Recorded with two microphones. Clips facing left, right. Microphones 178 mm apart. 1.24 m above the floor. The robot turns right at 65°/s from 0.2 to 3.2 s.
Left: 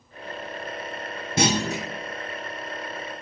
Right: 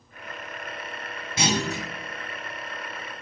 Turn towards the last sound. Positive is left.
turn(degrees=180)